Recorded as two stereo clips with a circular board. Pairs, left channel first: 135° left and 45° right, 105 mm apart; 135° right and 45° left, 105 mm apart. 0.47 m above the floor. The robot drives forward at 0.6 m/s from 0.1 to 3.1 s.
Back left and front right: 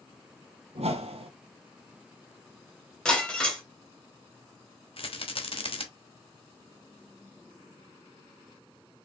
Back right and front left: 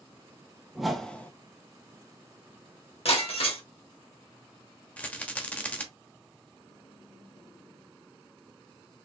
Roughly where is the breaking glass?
Behind right.